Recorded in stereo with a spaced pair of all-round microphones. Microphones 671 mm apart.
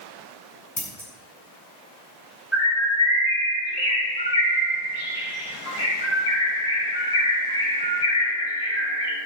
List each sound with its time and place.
0.8 s scissors: 25° left (ahead or behind), 6.5 m
2.5 s a bird: 75° left (ahead or behind), 3.5 m